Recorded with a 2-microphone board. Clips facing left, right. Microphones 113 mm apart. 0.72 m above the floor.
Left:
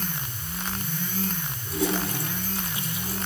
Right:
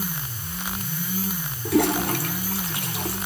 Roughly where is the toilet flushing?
Right.